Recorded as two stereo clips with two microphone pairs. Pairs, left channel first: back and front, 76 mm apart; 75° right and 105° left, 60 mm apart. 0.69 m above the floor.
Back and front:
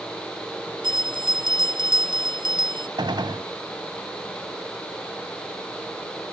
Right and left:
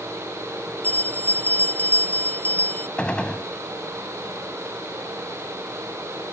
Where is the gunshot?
Straight ahead.